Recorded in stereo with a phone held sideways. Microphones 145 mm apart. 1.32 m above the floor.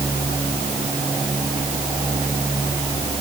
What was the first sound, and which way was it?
Only background noise.